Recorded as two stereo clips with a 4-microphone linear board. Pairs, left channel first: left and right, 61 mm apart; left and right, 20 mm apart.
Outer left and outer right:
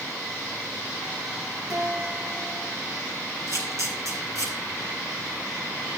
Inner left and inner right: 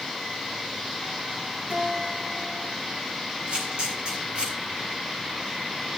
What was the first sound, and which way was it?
A guitar, 70° right (ahead or behind).